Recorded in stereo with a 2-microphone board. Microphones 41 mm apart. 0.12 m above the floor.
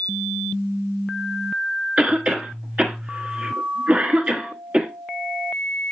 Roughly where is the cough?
Right.